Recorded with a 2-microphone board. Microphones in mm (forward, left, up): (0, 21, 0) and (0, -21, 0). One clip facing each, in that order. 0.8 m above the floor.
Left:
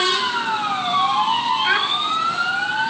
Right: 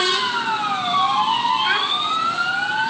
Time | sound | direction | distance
1.6 | a child speaking | 5° left (ahead or behind) | 3 m